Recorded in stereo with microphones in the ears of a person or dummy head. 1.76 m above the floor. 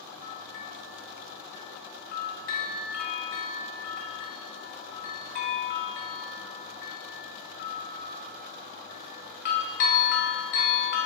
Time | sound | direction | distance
0.2 | a bell | 55° left (ahead or behind) | 1.4 m